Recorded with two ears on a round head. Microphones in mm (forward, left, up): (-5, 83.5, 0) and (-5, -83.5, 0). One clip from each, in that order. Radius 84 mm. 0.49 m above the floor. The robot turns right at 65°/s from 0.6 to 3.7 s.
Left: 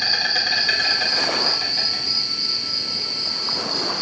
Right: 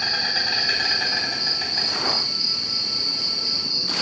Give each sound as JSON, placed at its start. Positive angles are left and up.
{"t": 0.0, "sound": "an insect", "azimuth_deg": 75, "distance_m": 2.0}